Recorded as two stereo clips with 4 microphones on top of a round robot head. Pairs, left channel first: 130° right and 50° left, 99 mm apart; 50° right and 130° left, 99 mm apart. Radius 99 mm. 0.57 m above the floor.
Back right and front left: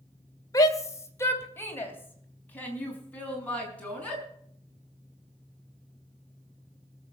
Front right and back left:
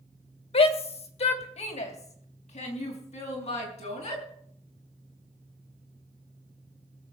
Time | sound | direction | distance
0.5 | a shout | 75° right | 2 m